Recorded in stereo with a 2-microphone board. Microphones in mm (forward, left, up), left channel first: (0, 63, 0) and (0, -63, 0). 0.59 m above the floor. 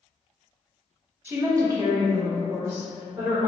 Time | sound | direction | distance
1.2 | a woman speaking | 15° right (ahead or behind) | 0.7 m